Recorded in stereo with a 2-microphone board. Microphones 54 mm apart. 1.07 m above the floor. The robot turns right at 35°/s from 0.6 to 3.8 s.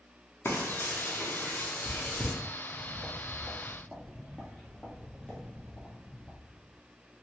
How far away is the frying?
About 0.7 m.